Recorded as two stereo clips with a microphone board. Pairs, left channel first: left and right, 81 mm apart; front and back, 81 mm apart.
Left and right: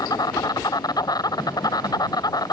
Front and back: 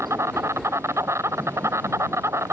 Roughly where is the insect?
Behind left.